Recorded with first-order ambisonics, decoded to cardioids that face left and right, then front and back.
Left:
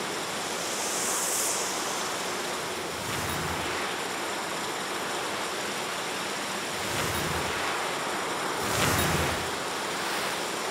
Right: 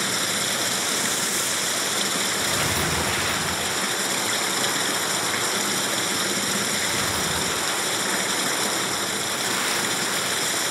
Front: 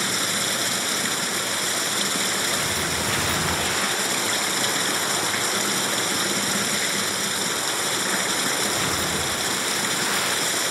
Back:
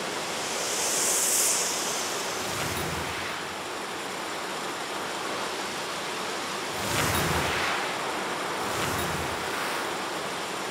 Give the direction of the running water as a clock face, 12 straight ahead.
1 o'clock.